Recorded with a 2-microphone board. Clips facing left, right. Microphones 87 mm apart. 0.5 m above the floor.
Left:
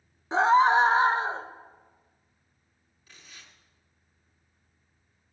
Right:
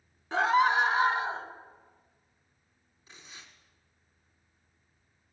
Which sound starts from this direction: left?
A scream, at 0.3 s.